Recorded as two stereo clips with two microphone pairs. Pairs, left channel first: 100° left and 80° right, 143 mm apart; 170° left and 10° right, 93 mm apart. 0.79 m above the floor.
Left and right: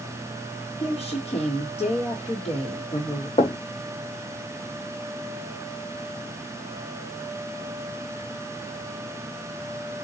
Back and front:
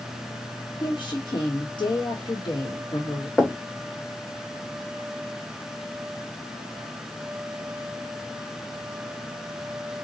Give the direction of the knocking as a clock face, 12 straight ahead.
9 o'clock.